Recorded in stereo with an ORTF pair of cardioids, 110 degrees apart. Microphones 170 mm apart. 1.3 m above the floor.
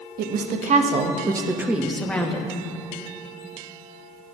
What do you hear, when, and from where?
0.2 s a woman speaking: 60° right, 1.5 m; by 2.6 s 15° left, 1.7 m